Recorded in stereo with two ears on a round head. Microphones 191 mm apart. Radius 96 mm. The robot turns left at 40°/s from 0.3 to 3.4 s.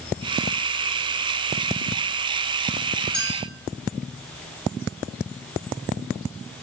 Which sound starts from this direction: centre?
A clink, at 3.1 s.